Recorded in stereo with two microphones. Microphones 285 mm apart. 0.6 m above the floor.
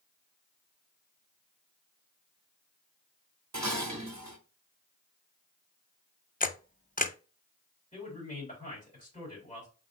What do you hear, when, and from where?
3.5 s dishes clattering: 70° right (ahead or behind), 0.9 m
6.4 s a camera shutter: 30° left (ahead or behind), 0.5 m
7.9 s a man speaking: 25° left (ahead or behind), 4 m